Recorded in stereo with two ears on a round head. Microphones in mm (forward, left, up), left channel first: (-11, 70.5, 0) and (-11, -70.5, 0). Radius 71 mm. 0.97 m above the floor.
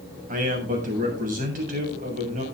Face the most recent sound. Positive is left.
turn(degrees=-55)  # may be behind; listen again after turning